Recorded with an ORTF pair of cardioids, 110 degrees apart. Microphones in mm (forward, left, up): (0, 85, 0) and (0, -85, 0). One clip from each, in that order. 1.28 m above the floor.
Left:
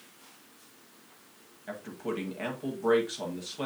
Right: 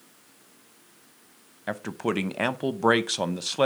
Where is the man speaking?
65° right, 0.7 m.